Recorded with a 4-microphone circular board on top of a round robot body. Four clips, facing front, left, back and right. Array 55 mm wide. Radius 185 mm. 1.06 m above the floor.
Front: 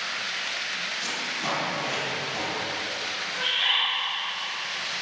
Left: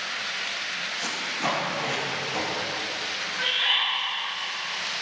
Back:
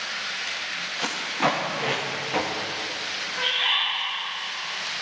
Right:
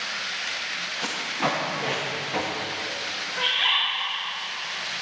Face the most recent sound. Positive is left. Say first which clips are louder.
# right 2 dB, back 1 dB
turn(degrees=-100)